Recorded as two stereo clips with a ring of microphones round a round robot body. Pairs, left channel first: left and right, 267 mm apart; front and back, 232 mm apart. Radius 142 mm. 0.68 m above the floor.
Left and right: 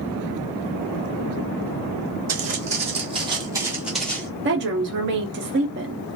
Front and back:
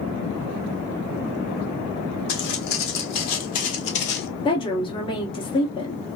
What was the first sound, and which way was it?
Footsteps, 30° right.